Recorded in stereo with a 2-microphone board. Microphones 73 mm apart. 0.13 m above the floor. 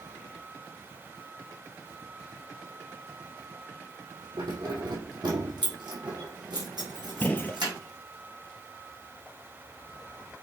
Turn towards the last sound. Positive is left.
turn(degrees=25)  # may be behind; listen again after turning